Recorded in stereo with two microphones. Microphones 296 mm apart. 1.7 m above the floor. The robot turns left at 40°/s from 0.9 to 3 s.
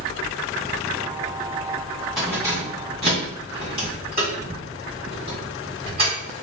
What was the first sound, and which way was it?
Keys jangling, centre (ahead or behind).